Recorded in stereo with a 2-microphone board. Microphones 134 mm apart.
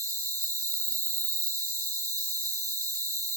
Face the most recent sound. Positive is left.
turn(degrees=-25)  # may be behind; listen again after turning